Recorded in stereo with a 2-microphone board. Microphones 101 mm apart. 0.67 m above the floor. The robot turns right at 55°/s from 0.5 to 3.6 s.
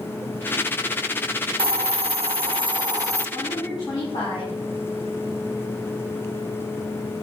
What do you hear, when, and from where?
1.6 s a hiss: 115° right, 0.6 m; by 3.3 s 25° right, 0.6 m
3.3 s a woman speaking: 30° left (ahead or behind), 5 m; by 4.5 s 45° left (ahead or behind), 5 m